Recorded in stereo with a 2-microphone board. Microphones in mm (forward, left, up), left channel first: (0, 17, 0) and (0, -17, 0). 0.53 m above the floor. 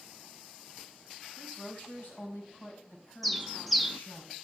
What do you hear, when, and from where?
1.4 s a woman speaking: 60° left (ahead or behind), 3.5 m; by 4.2 s 65° left (ahead or behind), 4.5 m
3.2 s a bird: centre (ahead or behind), 0.6 m